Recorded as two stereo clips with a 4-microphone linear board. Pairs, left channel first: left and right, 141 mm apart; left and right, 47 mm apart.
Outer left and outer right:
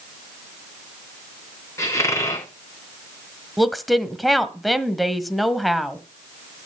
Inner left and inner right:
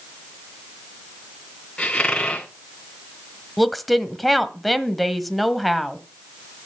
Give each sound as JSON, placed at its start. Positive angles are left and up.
{"t": 1.8, "sound": "a squeak", "side_deg": 20, "distance_m": 2.0}
{"t": 3.6, "sound": "a woman speaking", "side_deg": 0, "distance_m": 1.3}